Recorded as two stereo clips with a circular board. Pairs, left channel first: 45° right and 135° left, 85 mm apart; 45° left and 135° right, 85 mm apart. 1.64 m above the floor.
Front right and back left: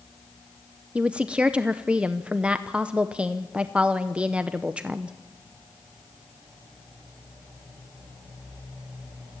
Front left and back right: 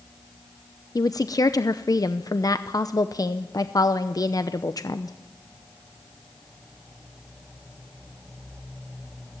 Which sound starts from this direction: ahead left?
A woman speaking, at 0.9 s.